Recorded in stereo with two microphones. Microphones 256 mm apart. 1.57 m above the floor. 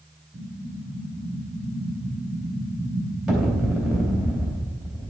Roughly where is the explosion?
Centre.